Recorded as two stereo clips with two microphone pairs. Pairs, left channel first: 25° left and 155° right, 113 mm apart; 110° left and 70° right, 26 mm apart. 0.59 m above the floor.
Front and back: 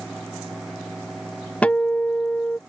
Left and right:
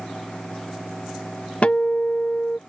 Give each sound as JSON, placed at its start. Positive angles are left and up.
{"t": 1.6, "sound": "a guitar", "azimuth_deg": 105}